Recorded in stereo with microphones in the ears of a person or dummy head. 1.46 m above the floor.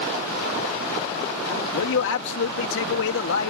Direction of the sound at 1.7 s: 70° left (ahead or behind).